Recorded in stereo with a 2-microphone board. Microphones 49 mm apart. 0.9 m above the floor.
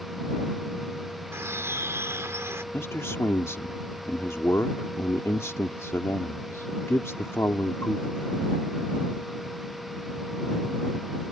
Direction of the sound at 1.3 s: 65° right (ahead or behind).